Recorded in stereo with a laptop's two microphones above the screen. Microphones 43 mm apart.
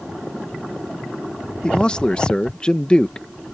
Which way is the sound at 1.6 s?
20° left (ahead or behind).